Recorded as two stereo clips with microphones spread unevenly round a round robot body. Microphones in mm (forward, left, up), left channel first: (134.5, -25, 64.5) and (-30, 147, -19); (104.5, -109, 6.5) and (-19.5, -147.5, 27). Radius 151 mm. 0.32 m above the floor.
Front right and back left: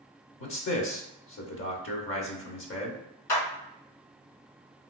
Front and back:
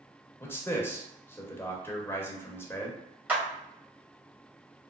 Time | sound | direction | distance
0.4 | a man speaking | 25° right | 0.9 m
3.3 | a clap | 80° right | 1.4 m